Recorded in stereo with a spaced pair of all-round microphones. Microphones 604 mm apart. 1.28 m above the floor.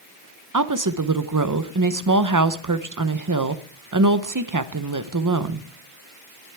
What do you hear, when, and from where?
0.5 s a woman speaking: 30° right (ahead or behind), 0.7 m